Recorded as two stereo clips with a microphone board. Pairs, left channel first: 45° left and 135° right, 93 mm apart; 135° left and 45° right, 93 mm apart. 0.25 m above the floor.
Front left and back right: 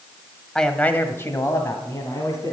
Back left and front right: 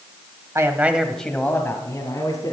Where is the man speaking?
35° right, 1.1 m; by 2.5 s 95° left, 2 m.